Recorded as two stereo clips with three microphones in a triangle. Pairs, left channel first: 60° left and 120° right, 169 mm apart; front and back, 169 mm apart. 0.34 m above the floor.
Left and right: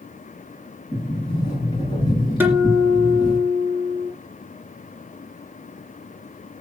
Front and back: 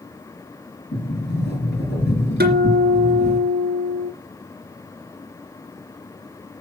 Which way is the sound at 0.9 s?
5° right.